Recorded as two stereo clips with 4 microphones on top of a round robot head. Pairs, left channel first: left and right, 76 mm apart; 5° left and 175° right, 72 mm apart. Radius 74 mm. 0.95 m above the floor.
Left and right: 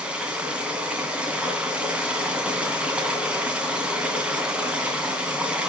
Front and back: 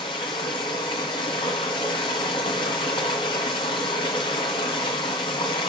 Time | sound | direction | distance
0.0 | running water | 15° right | 2 m